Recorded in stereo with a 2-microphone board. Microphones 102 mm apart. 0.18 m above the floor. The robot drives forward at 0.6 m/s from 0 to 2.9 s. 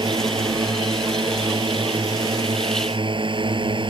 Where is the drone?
50° right (ahead or behind); by 3.9 s 55° right (ahead or behind).